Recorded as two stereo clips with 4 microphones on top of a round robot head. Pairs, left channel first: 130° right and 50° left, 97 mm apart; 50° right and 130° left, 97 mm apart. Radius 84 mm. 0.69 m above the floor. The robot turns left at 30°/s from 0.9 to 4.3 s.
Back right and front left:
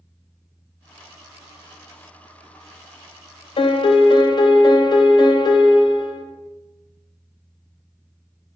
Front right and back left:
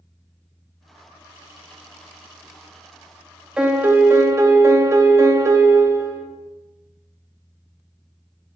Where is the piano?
150° right, 0.5 m; by 6.2 s 170° right, 0.5 m.